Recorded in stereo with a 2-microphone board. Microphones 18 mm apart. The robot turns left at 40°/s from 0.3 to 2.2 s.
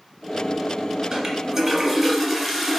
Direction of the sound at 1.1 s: 145° right.